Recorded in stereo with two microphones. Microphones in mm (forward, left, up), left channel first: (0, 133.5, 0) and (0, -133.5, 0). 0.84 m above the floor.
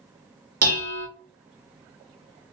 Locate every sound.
0.6 s dishes clattering: 60° right (ahead or behind), 0.8 m